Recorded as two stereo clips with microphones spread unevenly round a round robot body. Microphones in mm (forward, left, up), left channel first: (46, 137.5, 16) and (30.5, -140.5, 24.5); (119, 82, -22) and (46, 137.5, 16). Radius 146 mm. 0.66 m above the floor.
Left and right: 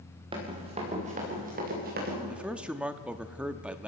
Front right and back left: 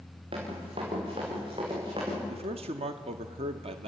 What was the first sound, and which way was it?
Running footsteps, 165° right.